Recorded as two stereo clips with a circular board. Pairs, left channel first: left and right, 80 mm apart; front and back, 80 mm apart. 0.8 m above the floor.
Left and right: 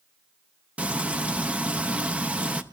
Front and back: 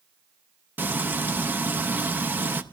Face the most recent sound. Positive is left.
turn(degrees=-150)